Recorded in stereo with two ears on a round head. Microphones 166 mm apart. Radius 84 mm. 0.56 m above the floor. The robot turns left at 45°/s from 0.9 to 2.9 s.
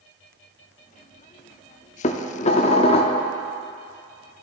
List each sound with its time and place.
2.0 s dishes clattering: 100° left, 0.5 m; by 3.2 s 60° left, 0.5 m